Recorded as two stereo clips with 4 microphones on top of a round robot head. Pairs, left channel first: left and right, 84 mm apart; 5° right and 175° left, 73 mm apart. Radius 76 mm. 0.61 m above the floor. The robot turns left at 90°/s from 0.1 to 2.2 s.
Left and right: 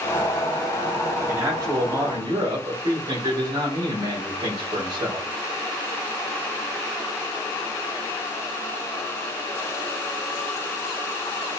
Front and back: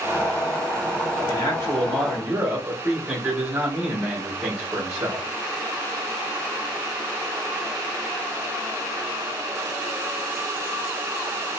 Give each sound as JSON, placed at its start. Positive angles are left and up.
{"t": 1.3, "sound": "a man speaking", "azimuth_deg": -25, "distance_m": 2.0}